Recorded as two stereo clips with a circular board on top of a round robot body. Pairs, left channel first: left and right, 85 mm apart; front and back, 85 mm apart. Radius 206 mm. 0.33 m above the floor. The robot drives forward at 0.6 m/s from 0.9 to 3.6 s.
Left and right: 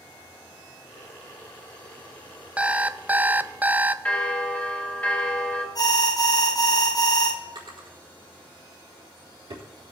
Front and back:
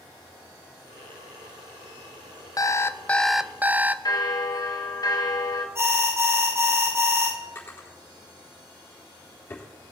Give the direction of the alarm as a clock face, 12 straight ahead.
8 o'clock.